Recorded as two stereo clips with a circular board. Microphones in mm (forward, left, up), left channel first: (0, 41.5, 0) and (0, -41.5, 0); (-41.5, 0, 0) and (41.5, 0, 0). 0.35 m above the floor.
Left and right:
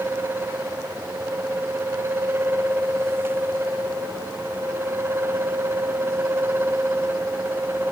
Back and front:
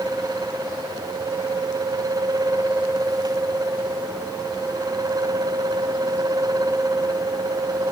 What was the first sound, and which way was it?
Only background noise.